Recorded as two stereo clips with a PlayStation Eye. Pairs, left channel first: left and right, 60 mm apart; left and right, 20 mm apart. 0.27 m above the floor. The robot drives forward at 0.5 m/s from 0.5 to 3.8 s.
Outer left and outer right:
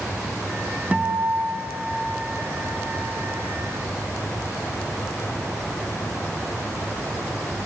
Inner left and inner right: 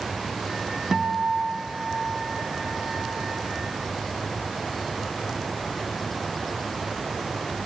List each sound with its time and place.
0.9 s a guitar: 25° right (ahead or behind), 0.6 m; by 3.2 s 10° right (ahead or behind), 1.7 m